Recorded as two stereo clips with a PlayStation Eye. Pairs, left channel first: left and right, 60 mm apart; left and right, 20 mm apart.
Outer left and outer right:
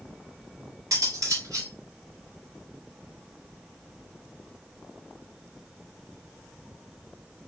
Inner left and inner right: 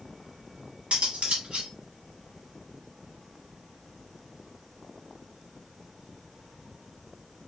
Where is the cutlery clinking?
80° right, 1.1 m.